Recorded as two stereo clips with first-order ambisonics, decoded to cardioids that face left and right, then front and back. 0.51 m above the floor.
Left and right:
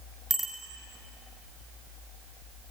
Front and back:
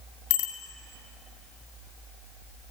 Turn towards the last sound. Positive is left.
turn(degrees=-5)